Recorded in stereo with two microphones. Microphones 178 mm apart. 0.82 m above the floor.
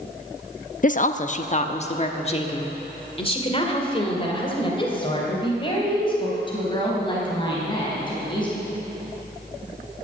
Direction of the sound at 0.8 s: 50° left (ahead or behind).